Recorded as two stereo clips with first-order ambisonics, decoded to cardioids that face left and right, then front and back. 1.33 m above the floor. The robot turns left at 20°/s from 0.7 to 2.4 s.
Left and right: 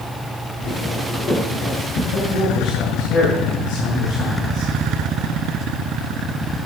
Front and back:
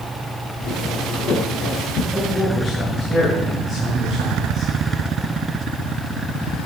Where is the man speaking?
90° left, 9.5 m; by 4.7 s 85° left, 9.5 m.